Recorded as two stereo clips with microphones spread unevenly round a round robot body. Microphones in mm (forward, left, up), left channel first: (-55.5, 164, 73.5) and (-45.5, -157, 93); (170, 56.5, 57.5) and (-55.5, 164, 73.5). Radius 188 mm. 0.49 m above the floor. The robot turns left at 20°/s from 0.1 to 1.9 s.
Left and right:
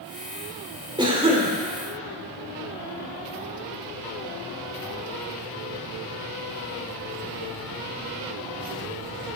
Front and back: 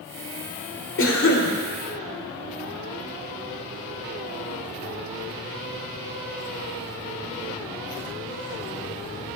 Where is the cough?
10° right, 2 m; by 1.5 s 20° right, 2 m.